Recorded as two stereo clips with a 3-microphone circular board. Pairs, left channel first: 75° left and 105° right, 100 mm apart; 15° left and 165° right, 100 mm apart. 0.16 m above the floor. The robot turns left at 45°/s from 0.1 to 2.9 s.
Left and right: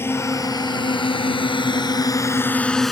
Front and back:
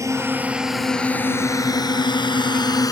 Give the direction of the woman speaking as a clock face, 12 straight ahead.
No woman speaking in this recording.